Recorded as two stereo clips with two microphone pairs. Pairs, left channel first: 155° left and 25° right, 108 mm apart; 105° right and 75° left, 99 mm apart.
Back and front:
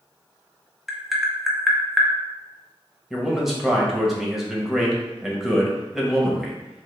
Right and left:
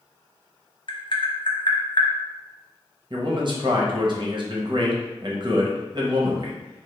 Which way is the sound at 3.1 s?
60° left.